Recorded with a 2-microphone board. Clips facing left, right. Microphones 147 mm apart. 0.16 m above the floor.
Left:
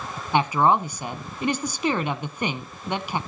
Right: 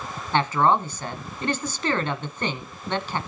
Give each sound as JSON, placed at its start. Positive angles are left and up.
{"t": 0.3, "sound": "a man speaking", "side_deg": 10, "distance_m": 1.1}